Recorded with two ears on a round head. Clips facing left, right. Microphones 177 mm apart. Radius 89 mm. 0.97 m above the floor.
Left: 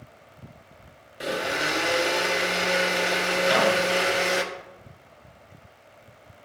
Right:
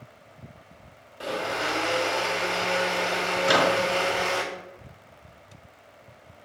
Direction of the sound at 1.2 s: 20° left (ahead or behind).